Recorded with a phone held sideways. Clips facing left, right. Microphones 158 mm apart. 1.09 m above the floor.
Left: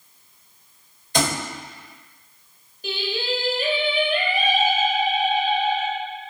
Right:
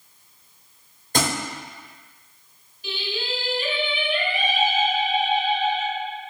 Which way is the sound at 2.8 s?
40° left (ahead or behind).